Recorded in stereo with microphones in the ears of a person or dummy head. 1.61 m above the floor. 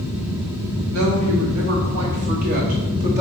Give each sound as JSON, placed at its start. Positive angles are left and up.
{"t": 0.9, "sound": "a woman speaking", "side_deg": -65, "distance_m": 2.0}